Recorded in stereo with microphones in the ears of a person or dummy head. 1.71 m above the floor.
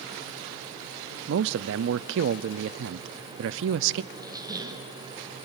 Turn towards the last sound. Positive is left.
turn(degrees=-20)  # may be behind; listen again after turning